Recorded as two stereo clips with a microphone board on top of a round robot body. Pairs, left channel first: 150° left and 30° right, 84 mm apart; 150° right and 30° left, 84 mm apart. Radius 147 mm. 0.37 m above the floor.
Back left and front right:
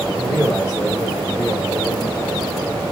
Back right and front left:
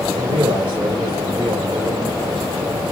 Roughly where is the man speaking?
Left.